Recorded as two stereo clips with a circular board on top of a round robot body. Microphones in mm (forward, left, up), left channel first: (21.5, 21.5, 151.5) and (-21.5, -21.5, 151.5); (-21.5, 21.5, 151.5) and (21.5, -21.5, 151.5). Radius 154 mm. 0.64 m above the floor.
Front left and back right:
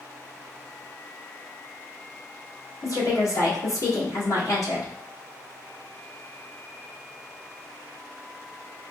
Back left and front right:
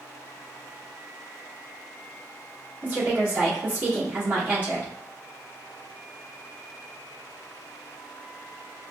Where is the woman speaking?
20° left, 1.9 m.